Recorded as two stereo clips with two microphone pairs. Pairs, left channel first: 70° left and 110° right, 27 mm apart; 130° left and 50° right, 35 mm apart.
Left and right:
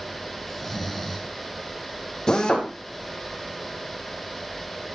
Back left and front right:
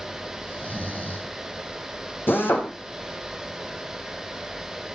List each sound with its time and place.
0.5 s snoring: 160° left, 3 m
2.3 s a drill: 140° left, 4 m